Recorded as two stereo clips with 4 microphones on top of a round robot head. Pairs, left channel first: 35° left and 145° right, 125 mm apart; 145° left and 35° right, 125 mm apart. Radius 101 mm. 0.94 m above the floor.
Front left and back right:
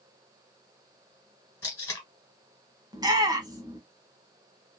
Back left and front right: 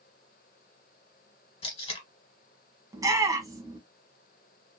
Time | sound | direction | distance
1.6 | tape being pulled | 105° left | 1.8 m
2.9 | a shout | 90° right | 1.5 m